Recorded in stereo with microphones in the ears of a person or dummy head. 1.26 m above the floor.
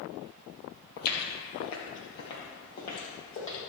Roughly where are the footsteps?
Left.